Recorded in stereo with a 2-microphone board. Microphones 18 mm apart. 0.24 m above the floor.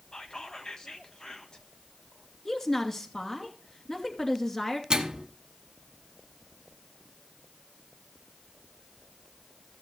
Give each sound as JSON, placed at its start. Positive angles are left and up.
{"t": 0.1, "sound": "whispering", "side_deg": 45, "distance_m": 1.4}
{"t": 2.5, "sound": "a woman speaking", "side_deg": 25, "distance_m": 2.5}
{"t": 4.9, "sound": "a microwave", "side_deg": -50, "distance_m": 1.3}